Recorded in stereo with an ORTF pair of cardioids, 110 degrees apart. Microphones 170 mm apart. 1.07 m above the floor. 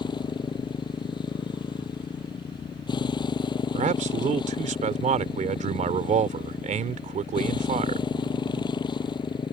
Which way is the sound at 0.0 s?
25° left.